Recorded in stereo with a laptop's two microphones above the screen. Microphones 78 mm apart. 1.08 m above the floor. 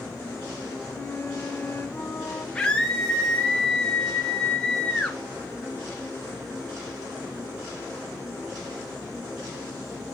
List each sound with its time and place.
0.9 s a flute: 20° left (ahead or behind), 1.6 m
2.5 s a scream: 10° left (ahead or behind), 0.7 m